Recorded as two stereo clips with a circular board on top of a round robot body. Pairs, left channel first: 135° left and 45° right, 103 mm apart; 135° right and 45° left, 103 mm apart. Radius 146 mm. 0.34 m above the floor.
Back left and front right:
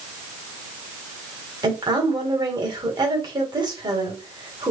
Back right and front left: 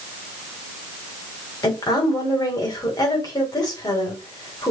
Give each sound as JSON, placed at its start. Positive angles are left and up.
{"t": 1.6, "sound": "a woman speaking", "azimuth_deg": -85, "distance_m": 2.0}